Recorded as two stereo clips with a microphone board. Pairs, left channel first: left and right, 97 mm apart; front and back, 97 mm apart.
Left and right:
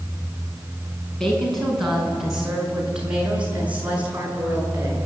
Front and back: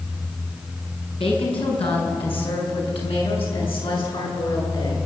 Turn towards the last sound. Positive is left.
turn(degrees=-25)